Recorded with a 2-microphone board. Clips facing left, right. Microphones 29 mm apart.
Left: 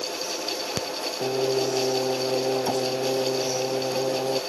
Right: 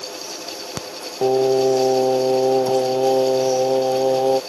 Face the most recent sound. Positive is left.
turn(degrees=-45)  # may be behind; listen again after turning